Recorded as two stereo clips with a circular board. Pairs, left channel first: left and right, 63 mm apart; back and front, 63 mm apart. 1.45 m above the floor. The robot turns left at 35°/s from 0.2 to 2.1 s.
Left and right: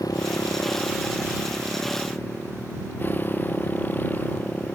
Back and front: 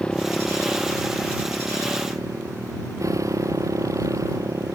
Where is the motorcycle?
105° left; by 4.8 s 30° left.